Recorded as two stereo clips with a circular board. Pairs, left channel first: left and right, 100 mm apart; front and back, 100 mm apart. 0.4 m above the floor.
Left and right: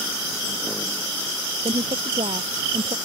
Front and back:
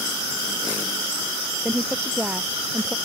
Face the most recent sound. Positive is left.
turn(degrees=-100)